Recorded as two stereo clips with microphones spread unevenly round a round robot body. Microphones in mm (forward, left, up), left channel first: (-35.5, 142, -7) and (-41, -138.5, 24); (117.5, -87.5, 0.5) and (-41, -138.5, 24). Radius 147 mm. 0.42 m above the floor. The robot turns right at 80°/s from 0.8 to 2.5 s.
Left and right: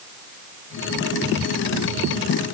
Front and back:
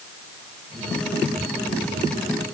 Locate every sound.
Only background noise.